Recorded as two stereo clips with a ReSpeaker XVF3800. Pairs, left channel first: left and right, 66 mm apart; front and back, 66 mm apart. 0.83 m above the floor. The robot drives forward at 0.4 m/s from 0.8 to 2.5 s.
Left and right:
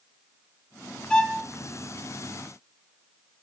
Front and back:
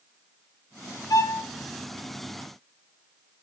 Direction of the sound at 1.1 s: 15° left.